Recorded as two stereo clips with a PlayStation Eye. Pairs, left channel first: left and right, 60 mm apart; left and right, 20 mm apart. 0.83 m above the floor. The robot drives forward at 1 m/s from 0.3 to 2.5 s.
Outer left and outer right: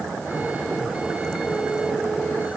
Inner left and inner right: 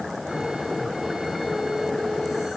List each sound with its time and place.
Only background noise.